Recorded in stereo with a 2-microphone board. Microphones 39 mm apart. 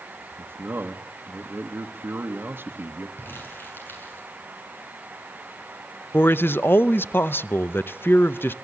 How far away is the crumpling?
About 7.5 m.